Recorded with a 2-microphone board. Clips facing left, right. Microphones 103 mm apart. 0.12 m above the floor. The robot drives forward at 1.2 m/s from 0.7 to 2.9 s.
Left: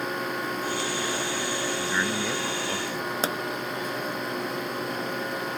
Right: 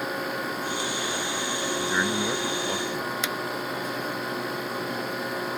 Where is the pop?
40° left (ahead or behind).